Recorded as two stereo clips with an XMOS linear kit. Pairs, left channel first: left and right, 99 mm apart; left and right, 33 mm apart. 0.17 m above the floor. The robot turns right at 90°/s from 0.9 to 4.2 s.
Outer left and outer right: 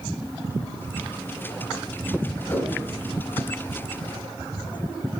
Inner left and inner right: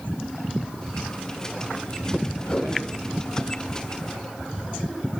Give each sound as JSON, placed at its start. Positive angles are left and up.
{"t": 2.5, "sound": "a whoosh", "side_deg": 25, "distance_m": 1.4}